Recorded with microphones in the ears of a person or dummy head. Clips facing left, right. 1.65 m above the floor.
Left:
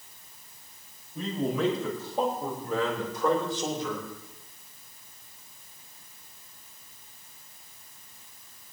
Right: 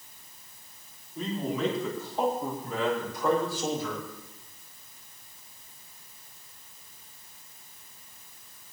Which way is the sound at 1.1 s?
65° left (ahead or behind).